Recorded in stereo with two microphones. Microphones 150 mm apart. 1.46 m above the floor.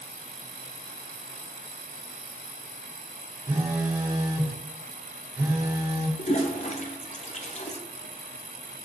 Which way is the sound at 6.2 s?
50° left (ahead or behind).